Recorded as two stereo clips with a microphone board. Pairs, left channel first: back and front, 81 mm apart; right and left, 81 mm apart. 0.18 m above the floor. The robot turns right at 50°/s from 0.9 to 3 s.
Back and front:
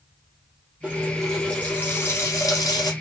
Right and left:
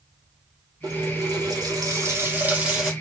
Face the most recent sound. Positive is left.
turn(degrees=180)